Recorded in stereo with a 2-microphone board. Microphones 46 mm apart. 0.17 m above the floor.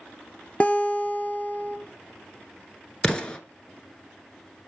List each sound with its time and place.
0.6 s a guitar: 30° left (ahead or behind), 1.0 m
3.0 s an explosion: 20° left (ahead or behind), 1.0 m